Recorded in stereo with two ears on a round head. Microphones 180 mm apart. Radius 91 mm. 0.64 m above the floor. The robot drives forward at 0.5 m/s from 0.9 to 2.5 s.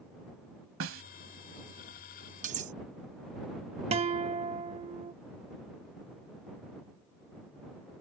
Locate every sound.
0.8 s a snare drum: 75° right (ahead or behind)
2.4 s cutlery clinking: 40° right (ahead or behind)
3.9 s a guitar: 30° right (ahead or behind)